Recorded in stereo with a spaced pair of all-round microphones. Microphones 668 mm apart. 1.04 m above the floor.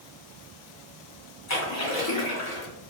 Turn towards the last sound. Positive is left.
turn(degrees=25)  # may be behind; listen again after turning